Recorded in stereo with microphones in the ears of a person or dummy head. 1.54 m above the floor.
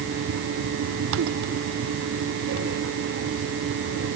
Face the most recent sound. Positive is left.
No sound to turn to.